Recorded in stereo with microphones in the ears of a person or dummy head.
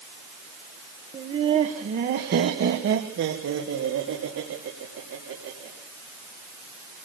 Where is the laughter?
20° right (ahead or behind), 1.4 m; by 5.7 s 80° right, 4.5 m.